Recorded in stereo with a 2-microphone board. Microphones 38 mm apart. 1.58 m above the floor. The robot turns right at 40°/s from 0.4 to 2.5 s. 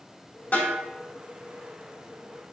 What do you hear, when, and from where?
0.5 s a snare drum: 45° left (ahead or behind), 1.6 m; by 0.8 s 50° left (ahead or behind), 1.6 m